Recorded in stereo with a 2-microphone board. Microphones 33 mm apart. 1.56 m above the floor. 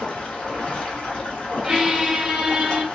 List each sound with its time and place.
0.0 s running water: 30° left (ahead or behind), 1.2 m
1.6 s a squeak: 15° right (ahead or behind), 0.9 m